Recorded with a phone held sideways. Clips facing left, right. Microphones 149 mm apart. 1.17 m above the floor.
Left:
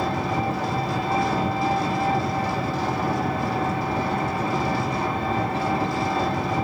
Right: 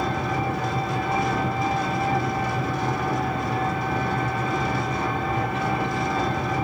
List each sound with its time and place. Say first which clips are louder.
0.0 s an engine running: left 1 dB; 30° left (ahead or behind), 2.5 m